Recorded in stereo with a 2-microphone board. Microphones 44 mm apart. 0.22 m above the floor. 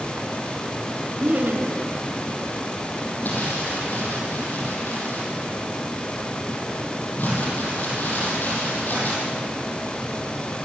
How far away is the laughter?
About 3 m.